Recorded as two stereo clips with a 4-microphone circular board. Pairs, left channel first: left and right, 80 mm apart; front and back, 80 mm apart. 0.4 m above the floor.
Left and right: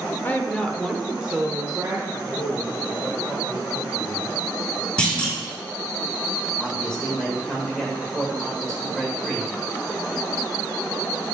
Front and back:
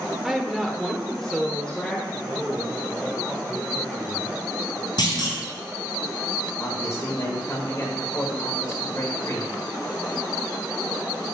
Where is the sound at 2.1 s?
85° left, 1.1 m.